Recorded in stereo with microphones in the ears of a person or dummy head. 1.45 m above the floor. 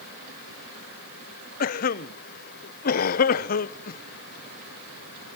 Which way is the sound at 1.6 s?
55° left (ahead or behind).